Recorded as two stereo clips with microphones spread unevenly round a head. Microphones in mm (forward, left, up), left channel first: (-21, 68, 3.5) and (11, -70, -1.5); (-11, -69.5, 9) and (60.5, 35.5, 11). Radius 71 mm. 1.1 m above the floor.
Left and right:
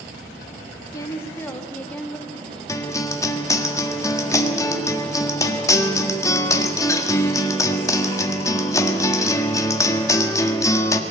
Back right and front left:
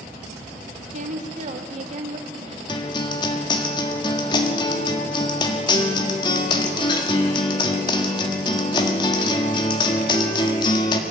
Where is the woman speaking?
35° left, 2 m; by 2.8 s 15° left, 3.5 m.